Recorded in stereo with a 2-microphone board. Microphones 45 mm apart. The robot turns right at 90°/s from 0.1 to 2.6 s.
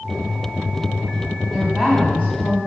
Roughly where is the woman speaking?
Ahead.